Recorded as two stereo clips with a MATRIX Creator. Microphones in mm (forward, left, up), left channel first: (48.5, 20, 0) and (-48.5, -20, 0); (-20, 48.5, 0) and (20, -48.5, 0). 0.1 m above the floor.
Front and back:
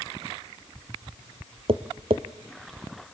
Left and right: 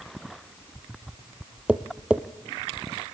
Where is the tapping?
145° right, 1.2 m.